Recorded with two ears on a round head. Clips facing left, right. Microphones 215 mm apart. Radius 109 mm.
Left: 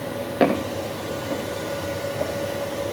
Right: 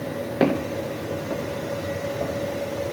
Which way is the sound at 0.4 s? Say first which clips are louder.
Left 1 dB; centre (ahead or behind).